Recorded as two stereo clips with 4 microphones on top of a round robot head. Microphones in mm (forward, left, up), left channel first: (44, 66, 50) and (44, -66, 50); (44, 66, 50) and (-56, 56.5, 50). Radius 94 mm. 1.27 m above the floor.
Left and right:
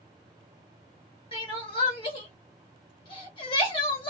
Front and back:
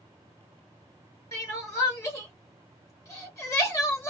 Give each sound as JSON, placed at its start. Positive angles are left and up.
{"t": 1.3, "sound": "crying", "azimuth_deg": 55, "distance_m": 1.2}